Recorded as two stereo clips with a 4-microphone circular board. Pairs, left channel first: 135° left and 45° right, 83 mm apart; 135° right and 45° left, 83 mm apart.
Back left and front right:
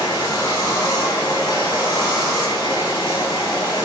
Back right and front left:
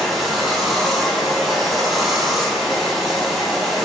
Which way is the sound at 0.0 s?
130° left.